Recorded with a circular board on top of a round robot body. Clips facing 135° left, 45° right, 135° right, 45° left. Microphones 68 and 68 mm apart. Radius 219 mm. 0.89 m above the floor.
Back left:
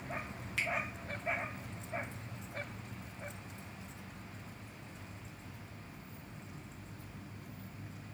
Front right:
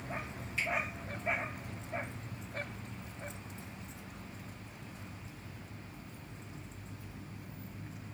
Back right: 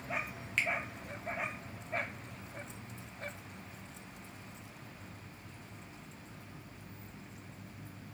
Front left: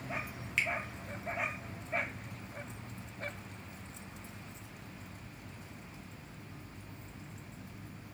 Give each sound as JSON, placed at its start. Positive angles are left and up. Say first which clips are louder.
{"t": 0.6, "sound": "a finger snap", "louder": "front right 1 dB, even", "azimuth_deg": 130, "distance_m": 1.0}